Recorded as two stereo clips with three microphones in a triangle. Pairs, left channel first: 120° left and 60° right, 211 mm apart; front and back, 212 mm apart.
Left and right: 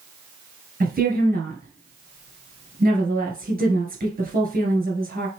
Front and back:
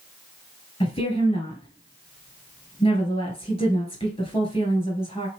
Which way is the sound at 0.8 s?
50° right.